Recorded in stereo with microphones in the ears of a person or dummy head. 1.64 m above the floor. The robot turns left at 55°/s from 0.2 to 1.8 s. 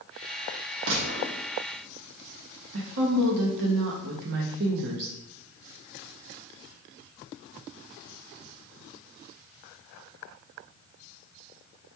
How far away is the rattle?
I don't hear a rattle.